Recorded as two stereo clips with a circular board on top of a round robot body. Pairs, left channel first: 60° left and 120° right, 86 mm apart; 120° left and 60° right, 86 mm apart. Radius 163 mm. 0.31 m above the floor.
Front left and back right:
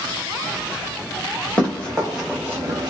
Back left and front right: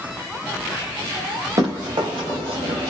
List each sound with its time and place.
1.6 s running footsteps: 15° right, 1.3 m; by 2.9 s 85° right, 0.6 m